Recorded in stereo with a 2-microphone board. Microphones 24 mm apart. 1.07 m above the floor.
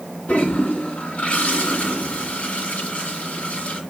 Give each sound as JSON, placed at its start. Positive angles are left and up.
{"t": 0.3, "sound": "a toilet flushing", "side_deg": 70, "distance_m": 3.0}